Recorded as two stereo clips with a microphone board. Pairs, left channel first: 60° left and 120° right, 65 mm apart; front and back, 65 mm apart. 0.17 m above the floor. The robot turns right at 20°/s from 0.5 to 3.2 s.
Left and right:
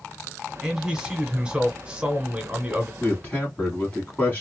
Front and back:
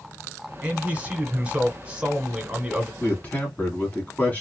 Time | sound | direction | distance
0.6 | a man speaking | 175° right | 1.1 m
3.0 | a man speaking | 25° left | 1.1 m